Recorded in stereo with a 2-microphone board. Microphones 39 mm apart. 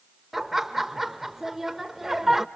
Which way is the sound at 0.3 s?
5° right (ahead or behind).